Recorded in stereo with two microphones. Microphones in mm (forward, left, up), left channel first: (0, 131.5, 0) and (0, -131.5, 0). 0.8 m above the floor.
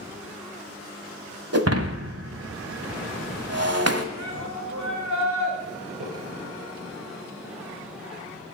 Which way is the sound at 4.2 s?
80° right.